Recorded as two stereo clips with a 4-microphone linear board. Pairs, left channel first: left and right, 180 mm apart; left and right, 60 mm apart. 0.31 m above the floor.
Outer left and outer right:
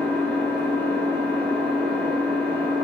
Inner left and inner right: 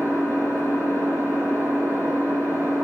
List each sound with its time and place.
0.0 s an engine running: 65° right (ahead or behind), 1.6 m